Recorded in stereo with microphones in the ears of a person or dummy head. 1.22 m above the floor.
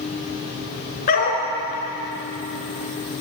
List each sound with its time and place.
1.1 s a dog barking: 45° left (ahead or behind), 5 m